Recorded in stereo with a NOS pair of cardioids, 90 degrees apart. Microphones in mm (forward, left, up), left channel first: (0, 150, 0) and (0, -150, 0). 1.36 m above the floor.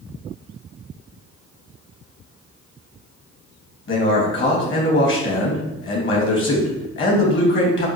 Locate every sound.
3.9 s a man speaking: 40° left, 1.3 m